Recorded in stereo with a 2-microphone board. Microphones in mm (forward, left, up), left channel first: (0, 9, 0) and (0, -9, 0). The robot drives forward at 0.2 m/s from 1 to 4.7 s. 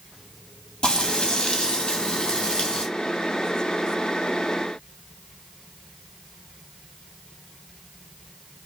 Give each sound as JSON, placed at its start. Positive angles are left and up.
{"t": 0.8, "sound": "frying", "side_deg": 55, "distance_m": 1.5}